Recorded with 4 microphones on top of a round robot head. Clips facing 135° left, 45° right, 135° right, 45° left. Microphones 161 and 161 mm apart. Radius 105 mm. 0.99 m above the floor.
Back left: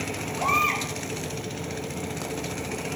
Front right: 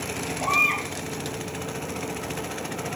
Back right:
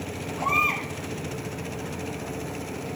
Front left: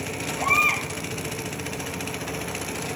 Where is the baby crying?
125° left, 4.5 m.